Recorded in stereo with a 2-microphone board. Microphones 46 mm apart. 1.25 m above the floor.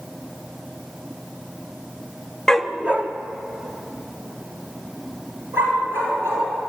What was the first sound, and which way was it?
A dog barking, 10° left (ahead or behind).